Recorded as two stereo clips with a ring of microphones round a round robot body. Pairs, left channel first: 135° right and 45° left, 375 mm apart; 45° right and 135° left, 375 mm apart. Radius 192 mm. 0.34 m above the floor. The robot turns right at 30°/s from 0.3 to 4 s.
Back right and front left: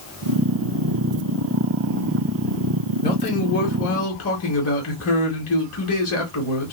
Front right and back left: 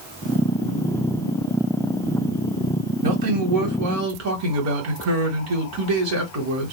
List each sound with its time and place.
3.0 s a man speaking: 145° left, 1.7 m; by 6.7 s 175° left, 1.7 m